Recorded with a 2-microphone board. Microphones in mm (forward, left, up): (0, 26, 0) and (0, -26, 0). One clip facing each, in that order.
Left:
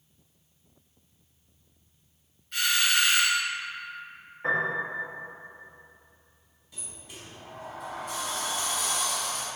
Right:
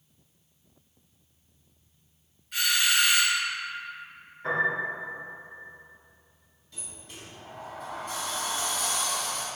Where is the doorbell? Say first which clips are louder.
Even; 5° right (ahead or behind), 1.7 m.